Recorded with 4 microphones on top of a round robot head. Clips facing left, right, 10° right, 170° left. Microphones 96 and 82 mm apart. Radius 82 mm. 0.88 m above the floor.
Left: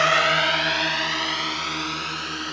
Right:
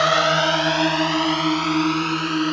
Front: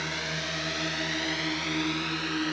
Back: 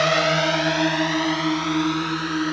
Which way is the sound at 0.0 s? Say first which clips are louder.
Right 3 dB, back 15 dB; 165° right.